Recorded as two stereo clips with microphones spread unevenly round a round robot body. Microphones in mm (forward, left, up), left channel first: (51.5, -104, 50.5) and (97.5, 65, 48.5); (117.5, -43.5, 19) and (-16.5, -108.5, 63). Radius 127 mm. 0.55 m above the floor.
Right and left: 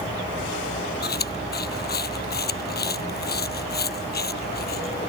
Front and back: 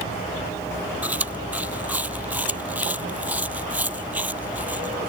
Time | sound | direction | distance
1.0 | chewing | 75° right | ?